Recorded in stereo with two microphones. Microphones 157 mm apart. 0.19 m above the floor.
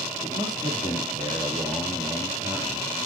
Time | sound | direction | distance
0.2 | a man speaking | 25° right (ahead or behind) | 4 m